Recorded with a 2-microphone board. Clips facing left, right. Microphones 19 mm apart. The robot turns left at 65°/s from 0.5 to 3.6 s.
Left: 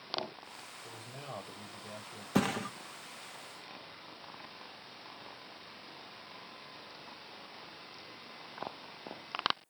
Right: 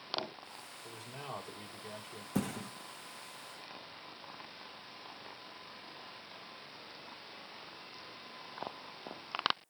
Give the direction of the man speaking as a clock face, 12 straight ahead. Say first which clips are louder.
Right 2 dB; 1 o'clock.